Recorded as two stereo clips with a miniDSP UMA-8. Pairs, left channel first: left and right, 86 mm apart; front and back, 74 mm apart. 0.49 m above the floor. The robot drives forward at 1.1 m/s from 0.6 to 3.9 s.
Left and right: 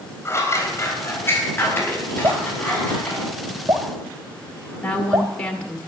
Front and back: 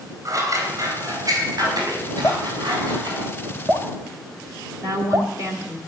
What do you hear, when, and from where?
0.2 s scissors: 145° left, 3.5 m; by 3.2 s 160° left, 6 m
2.2 s dripping: 50° right, 1.6 m; by 5.3 s 125° right, 1.6 m
4.8 s a woman speaking: 165° left, 1.6 m